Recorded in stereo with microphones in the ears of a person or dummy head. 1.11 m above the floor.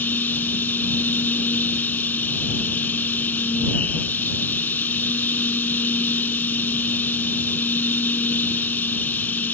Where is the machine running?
10° left (ahead or behind).